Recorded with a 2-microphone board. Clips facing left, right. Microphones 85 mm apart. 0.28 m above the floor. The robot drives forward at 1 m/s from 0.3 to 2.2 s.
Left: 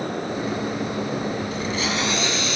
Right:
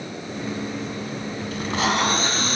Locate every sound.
1.5 s tape being pulled: 65° right (ahead or behind), 0.8 m; by 2.6 s 45° right (ahead or behind), 1.1 m